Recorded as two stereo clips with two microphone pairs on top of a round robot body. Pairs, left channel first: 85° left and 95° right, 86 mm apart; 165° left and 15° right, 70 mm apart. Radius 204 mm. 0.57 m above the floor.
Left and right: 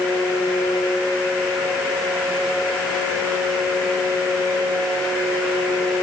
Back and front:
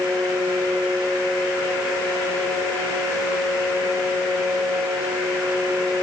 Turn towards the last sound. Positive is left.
No sound to turn to.